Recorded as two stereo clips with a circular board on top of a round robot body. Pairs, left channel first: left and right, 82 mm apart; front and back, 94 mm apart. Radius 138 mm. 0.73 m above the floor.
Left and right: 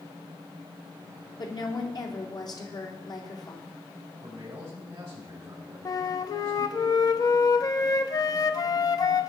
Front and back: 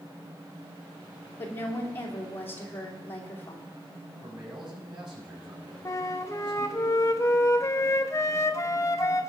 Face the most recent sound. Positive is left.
turn(degrees=55)